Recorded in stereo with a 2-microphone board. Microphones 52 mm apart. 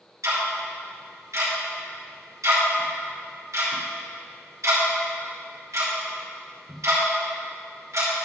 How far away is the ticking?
About 2.5 m.